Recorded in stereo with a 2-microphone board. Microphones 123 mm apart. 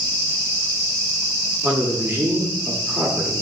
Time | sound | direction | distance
1.6 | a man speaking | 15° right (ahead or behind) | 1.0 m